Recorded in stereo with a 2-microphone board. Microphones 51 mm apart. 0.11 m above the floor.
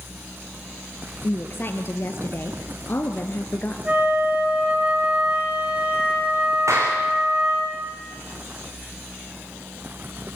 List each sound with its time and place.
1.2 s a woman speaking: 40° left (ahead or behind), 2 m
3.9 s a flute: 20° right (ahead or behind), 10 m
6.7 s a clap: 75° right (ahead or behind), 6 m